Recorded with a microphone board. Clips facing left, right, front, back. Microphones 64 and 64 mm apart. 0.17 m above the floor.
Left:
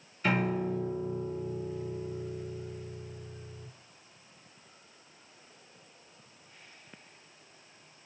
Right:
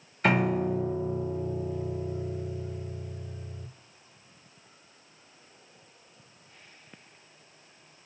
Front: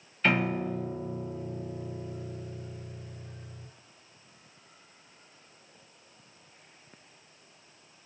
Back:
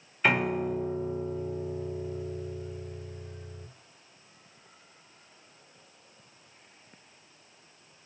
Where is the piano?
105° right, 0.8 m.